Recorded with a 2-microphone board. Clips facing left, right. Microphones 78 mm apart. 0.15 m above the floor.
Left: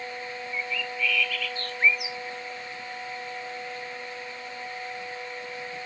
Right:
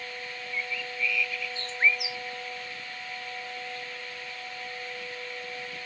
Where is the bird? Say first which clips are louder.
Left 2 dB; 25° right (ahead or behind).